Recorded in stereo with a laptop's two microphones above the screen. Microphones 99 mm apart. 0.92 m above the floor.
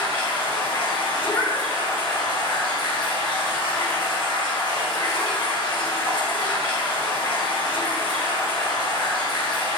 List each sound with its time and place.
0.0 s running water: 55° left (ahead or behind), 1.2 m
1.2 s a cat meowing: 15° left (ahead or behind), 0.8 m